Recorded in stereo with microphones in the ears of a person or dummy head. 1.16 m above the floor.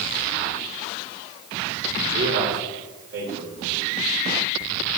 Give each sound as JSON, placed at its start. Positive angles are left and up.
{"t": 2.1, "sound": "a man speaking", "side_deg": -75, "distance_m": 3.5}